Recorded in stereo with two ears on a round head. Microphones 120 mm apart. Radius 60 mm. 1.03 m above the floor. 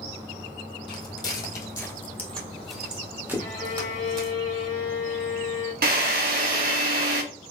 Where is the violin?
70° left (ahead or behind), 1.9 m.